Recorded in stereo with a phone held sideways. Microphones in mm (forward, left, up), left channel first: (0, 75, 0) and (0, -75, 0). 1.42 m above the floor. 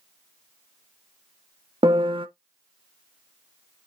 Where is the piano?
35° right (ahead or behind), 0.7 m.